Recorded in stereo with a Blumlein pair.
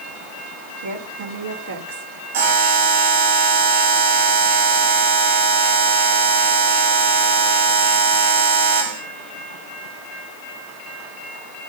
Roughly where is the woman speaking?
Ahead right.